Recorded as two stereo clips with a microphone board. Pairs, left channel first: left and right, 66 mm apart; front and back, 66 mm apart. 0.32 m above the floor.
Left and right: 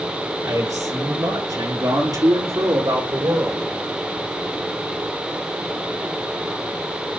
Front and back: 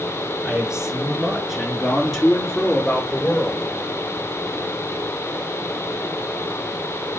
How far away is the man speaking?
About 5.5 m.